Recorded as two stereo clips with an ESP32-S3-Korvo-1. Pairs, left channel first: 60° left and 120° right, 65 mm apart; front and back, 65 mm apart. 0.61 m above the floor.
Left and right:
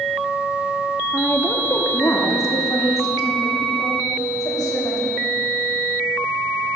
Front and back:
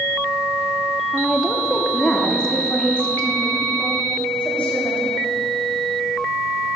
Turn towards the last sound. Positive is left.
turn(degrees=65)